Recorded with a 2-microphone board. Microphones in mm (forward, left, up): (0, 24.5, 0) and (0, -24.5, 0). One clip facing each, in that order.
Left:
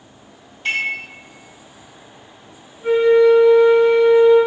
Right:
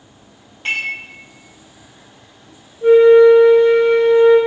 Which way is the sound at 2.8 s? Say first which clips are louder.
Right 5 dB; 75° right (ahead or behind).